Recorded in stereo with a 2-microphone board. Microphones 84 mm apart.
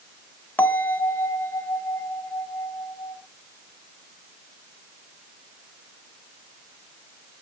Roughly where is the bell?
Left.